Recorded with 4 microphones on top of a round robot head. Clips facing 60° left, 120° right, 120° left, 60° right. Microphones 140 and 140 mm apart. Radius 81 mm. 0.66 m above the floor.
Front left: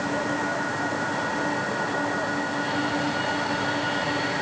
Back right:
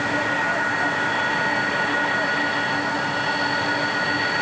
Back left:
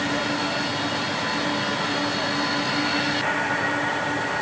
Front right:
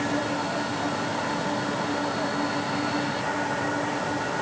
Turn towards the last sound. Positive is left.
No sound to turn to.